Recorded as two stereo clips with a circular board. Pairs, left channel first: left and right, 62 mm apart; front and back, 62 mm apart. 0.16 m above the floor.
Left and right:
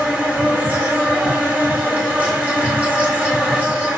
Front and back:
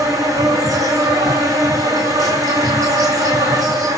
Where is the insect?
155° right, 2.0 m.